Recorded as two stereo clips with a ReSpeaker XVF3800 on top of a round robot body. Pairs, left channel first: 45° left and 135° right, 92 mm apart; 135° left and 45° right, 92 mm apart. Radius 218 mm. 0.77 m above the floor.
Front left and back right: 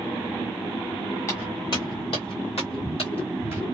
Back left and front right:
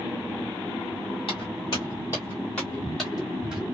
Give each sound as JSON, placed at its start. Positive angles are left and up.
{"t": 1.3, "sound": "footsteps", "azimuth_deg": 105, "distance_m": 1.2}